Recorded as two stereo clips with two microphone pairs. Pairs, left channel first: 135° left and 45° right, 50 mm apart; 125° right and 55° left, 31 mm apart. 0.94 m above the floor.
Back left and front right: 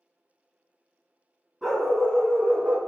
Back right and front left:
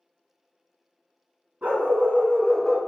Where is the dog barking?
45° left, 1.6 m; by 2.8 s 55° right, 0.7 m.